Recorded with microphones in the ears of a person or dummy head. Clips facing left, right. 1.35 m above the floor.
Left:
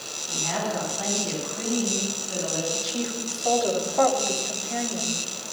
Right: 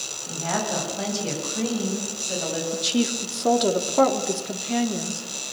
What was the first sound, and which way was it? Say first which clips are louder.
A woman speaking: right 2 dB; 80° right.